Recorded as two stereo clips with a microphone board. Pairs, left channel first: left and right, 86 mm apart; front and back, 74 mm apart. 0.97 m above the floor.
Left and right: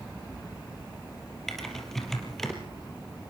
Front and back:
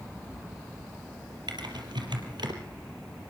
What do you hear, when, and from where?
1.5 s typing on a keyboard: 175° left, 4 m